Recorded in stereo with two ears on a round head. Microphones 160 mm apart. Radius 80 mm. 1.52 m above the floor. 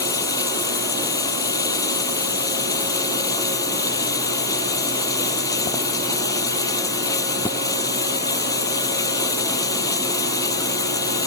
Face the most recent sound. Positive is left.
turn(degrees=20)  # may be behind; listen again after turning